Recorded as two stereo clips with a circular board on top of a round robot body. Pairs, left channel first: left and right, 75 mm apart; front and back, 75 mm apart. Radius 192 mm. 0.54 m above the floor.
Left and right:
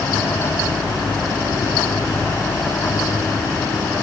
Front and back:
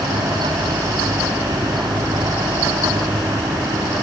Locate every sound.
Only background noise.